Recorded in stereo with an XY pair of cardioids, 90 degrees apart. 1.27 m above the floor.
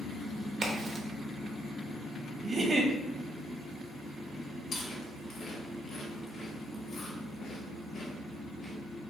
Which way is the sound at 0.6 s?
60° right.